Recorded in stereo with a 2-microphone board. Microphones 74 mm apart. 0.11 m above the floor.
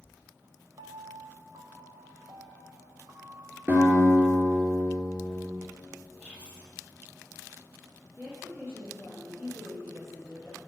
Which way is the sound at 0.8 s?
80° right.